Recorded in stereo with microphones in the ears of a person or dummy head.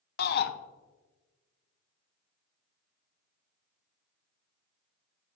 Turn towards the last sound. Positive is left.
turn(degrees=50)  # may be behind; listen again after turning